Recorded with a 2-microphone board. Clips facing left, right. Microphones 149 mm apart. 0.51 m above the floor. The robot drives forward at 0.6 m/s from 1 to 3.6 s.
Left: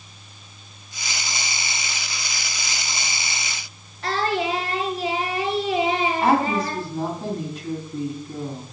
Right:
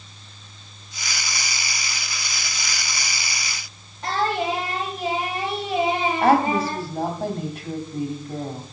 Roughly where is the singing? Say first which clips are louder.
Even; centre.